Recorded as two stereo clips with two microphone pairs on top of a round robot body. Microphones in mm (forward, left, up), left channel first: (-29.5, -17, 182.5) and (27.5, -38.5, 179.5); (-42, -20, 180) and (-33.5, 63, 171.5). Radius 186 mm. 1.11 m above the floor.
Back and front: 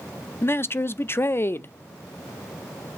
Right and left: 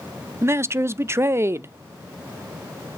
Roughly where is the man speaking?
Behind left.